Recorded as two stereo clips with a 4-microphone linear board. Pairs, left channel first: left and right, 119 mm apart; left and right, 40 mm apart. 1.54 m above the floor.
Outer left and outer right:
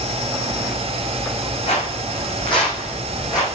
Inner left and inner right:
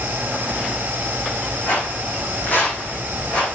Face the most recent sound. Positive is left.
turn(degrees=35)  # may be behind; listen again after turning